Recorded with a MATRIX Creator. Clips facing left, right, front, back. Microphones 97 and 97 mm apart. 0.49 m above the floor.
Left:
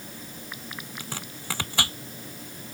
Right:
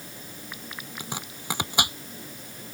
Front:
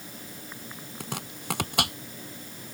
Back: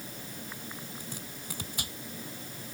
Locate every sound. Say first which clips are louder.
1.0 s chopping: right 1 dB, front 5 dB; 20° right